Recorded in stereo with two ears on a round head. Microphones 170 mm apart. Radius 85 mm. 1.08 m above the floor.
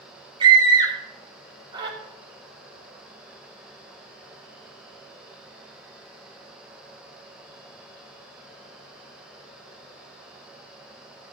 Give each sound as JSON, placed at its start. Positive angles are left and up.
{"t": 0.4, "sound": "a scream", "side_deg": -25, "distance_m": 4.0}